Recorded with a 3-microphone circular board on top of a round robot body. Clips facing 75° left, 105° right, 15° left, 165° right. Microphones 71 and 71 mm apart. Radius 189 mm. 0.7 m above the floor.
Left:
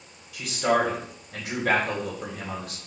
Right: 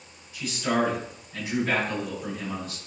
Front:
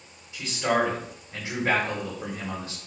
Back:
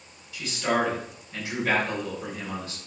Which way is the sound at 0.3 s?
80° left.